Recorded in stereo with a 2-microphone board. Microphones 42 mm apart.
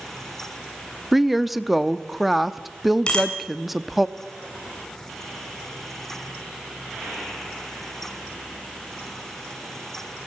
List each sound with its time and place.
1.1 s a woman speaking: centre (ahead or behind), 0.7 m
3.1 s a bicycle bell: 25° left (ahead or behind), 4.5 m